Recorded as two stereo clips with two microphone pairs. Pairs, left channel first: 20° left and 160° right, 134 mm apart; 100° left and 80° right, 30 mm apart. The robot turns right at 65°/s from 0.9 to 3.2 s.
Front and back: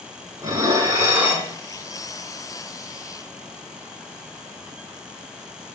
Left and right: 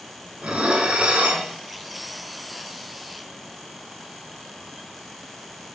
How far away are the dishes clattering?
About 1.2 m.